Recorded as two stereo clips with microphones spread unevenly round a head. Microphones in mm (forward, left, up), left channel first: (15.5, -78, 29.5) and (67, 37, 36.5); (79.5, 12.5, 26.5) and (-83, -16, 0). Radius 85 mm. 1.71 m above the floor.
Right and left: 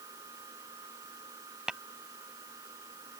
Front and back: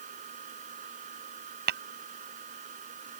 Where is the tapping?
150° left.